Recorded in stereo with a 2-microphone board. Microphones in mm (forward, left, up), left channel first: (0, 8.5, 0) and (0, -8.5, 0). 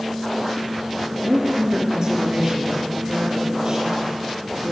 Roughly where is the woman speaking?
Right.